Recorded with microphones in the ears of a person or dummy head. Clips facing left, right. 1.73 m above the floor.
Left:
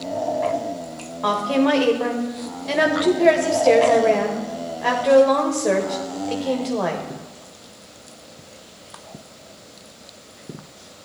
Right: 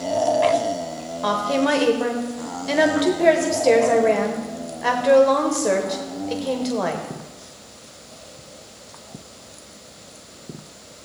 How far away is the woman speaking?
About 1.1 m.